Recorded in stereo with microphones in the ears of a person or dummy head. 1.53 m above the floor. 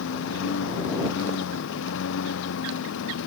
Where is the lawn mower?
75° left (ahead or behind).